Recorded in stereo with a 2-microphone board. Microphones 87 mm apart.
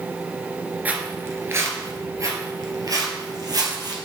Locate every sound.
0.8 s footsteps: 20° right (ahead or behind), 1.5 m; by 3.9 s 50° right (ahead or behind), 2.5 m